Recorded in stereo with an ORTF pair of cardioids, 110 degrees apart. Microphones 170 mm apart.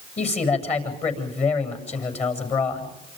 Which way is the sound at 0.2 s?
40° left.